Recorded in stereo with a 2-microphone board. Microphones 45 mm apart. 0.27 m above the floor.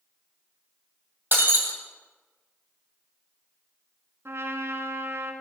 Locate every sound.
1.3 s breaking glass: 50° right (ahead or behind), 2.5 m
4.2 s a trumpet: 70° right (ahead or behind), 1.1 m